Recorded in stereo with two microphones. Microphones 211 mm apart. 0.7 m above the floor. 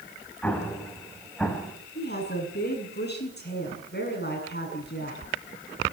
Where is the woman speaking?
50° left (ahead or behind), 7.5 m.